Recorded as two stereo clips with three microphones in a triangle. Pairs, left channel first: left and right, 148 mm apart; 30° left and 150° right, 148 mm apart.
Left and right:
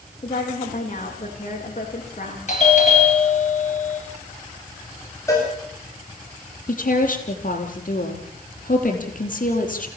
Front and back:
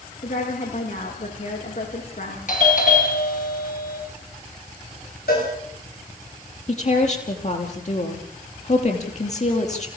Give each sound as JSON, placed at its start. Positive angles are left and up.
{"t": 0.2, "sound": "a woman speaking", "azimuth_deg": 50, "distance_m": 9.0}
{"t": 2.5, "sound": "a doorbell", "azimuth_deg": 55, "distance_m": 5.0}
{"t": 5.3, "sound": "a cowbell", "azimuth_deg": 20, "distance_m": 9.5}
{"t": 6.7, "sound": "a woman speaking", "azimuth_deg": 65, "distance_m": 5.0}